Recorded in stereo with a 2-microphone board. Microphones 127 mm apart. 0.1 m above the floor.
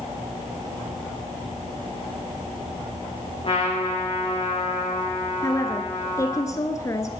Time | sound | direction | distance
3.4 | a trumpet | 45° left (ahead or behind) | 6 m
5.4 | a woman speaking | 25° left (ahead or behind) | 1.3 m